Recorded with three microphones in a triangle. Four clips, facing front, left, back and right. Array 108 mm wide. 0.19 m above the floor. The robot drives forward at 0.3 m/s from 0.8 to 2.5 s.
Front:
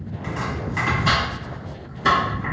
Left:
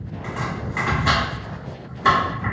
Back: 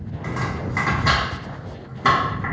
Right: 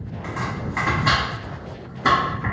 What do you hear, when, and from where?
0.2 s chopping: straight behind, 1.5 m